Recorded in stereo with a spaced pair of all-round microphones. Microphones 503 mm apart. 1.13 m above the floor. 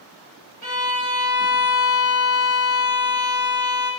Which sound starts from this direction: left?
A violin, at 0.6 s.